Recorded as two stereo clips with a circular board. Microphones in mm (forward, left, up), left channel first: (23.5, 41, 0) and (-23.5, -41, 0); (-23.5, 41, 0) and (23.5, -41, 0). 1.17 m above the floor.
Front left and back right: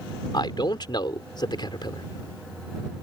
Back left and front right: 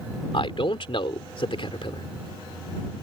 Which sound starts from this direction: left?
A man speaking, at 0.3 s.